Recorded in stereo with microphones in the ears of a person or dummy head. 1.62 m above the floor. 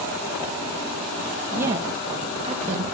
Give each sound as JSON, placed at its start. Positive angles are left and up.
{"t": 1.5, "sound": "a woman speaking", "side_deg": -15, "distance_m": 1.6}